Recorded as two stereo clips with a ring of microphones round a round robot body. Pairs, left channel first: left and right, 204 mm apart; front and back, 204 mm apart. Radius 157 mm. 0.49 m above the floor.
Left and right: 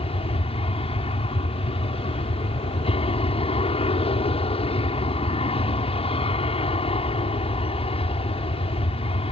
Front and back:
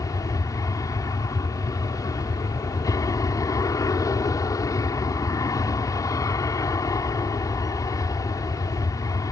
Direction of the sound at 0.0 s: 60° left.